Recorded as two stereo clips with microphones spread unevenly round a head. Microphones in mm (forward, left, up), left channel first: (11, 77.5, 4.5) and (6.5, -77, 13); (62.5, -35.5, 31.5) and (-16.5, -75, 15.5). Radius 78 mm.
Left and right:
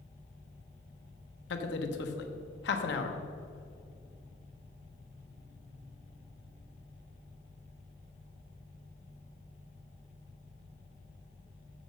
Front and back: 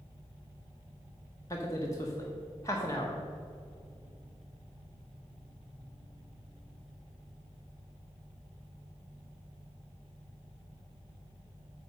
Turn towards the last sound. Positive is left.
turn(degrees=95)